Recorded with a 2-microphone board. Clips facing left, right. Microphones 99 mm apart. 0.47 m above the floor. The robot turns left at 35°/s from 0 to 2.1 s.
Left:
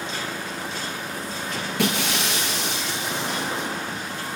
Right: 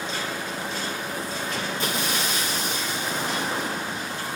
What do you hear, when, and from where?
1.8 s breaking glass: 80° left, 6 m; by 3.7 s 85° left, 6 m